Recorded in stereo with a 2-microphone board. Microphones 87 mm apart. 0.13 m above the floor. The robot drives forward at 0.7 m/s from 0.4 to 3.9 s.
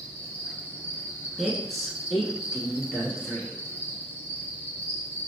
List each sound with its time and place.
0.0 s an insect: 20° left (ahead or behind), 1.6 m; by 5.3 s 25° left (ahead or behind), 1.5 m
1.4 s a woman speaking: centre (ahead or behind), 1.1 m